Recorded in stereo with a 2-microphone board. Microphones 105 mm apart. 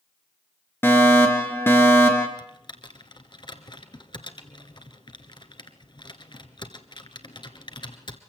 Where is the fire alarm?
20° left (ahead or behind), 3 m.